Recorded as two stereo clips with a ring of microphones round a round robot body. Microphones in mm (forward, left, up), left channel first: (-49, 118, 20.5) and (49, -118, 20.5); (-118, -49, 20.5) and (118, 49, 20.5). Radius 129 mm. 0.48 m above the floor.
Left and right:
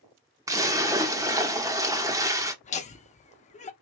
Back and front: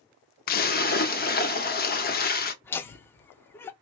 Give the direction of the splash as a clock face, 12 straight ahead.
5 o'clock.